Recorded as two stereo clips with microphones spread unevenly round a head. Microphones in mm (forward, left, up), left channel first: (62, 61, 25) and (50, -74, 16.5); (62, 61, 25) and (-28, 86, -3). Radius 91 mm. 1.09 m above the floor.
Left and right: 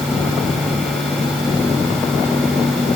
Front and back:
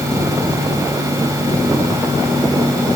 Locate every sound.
Only background noise.